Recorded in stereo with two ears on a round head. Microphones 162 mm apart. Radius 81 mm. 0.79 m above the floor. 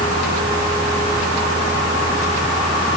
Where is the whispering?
No whispering in this recording.